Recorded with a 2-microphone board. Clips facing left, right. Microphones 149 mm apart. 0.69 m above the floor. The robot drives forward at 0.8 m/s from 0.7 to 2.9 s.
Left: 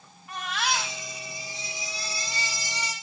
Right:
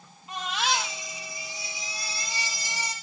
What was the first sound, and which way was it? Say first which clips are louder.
A baby crying: right 1 dB; 20° right (ahead or behind).